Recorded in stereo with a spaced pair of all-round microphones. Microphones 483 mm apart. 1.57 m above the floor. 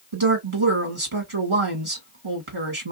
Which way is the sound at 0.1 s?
80° right.